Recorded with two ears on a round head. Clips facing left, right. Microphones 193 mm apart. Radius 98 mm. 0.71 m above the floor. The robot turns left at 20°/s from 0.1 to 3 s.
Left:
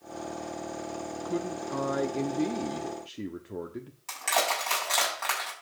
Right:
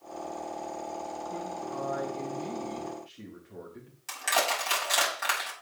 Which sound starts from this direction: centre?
Crushing, at 4.1 s.